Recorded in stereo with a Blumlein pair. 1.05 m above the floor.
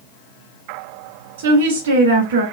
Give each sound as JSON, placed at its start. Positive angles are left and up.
{"t": 1.4, "sound": "a woman speaking", "azimuth_deg": -60, "distance_m": 2.0}